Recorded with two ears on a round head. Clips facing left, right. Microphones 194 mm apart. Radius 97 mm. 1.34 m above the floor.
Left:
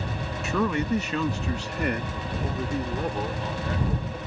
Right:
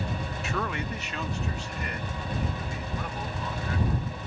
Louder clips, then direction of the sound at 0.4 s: Left 9 dB; 80° left.